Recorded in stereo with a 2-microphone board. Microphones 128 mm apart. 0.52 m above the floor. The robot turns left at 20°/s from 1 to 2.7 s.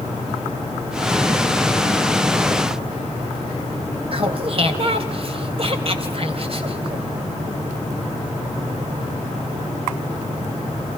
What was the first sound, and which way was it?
Laughter, 45° right (ahead or behind).